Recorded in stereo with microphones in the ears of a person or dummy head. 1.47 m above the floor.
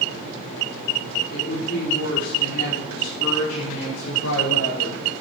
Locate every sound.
1.3 s a woman speaking: 45° left (ahead or behind), 4.5 m; by 5.0 s 80° left, 5.5 m